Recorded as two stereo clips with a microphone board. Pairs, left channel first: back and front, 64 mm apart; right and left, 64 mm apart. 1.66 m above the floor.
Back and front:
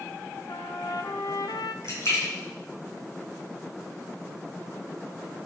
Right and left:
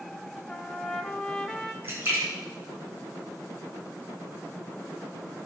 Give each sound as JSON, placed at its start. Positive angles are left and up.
{"t": 0.5, "sound": "a trumpet", "azimuth_deg": -170, "distance_m": 0.8}
{"t": 1.8, "sound": "a splash", "azimuth_deg": 140, "distance_m": 3.5}